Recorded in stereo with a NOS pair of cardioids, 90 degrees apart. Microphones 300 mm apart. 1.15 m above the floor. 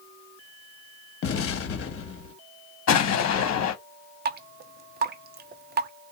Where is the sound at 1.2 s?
50° left, 1.0 m.